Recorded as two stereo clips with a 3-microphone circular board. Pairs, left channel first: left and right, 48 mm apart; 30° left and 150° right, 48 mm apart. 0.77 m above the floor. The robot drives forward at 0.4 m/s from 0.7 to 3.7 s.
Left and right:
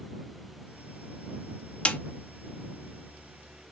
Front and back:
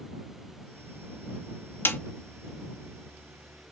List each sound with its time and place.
1.9 s a snare drum: 35° left, 0.7 m; by 2.0 s 40° left, 0.7 m